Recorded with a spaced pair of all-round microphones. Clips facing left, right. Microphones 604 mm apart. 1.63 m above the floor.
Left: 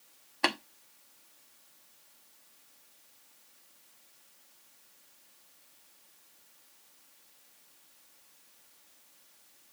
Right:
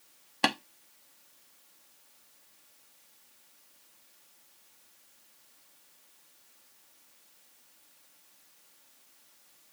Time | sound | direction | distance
0.4 | tapping | 50° right (ahead or behind) | 1.0 m